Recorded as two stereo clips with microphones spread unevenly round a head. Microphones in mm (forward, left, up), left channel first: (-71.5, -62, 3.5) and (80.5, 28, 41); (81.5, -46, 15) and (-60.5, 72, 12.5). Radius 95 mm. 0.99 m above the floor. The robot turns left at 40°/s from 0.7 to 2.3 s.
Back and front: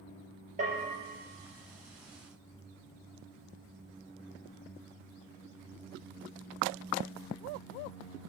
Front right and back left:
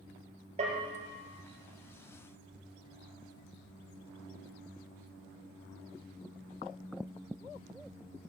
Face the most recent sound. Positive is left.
turn(degrees=20)